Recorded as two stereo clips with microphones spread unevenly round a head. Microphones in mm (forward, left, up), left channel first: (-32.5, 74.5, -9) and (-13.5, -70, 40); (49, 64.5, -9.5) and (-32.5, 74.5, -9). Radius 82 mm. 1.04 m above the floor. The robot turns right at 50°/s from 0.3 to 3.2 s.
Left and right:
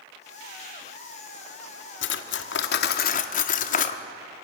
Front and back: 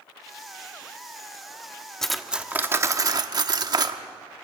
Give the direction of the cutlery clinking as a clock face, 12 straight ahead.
9 o'clock.